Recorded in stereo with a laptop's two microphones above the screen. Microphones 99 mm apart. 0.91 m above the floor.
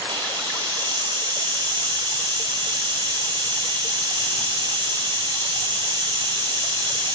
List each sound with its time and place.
0.1 s a hiss: 45° right (ahead or behind), 1.8 m